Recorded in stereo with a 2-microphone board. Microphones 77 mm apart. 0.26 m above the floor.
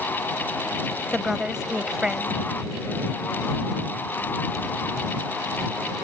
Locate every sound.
1.1 s a woman speaking: 10° right (ahead or behind)